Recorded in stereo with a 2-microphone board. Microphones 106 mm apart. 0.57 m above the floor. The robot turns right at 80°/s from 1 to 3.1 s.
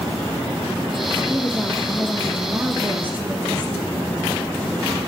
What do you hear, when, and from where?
1.3 s a woman speaking: 10° left (ahead or behind), 1.0 m; by 4.3 s 20° right (ahead or behind), 1.0 m